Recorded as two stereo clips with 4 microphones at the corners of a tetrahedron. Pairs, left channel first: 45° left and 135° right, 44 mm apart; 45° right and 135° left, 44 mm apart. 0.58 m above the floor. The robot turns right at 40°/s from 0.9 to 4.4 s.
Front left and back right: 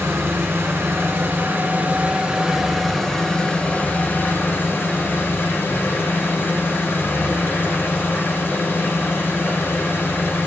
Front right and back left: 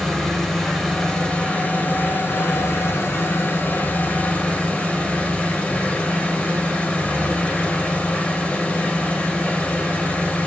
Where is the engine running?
120° right, 1.8 m; by 10.5 s 20° left, 1.8 m.